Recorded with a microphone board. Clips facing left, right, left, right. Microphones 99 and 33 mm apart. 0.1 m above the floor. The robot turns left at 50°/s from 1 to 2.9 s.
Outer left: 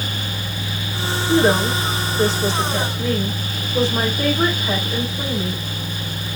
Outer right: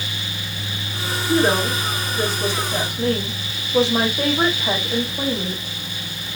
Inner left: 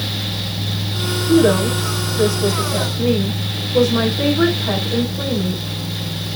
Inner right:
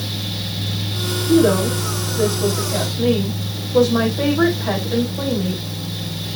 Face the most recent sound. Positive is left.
turn(degrees=-80)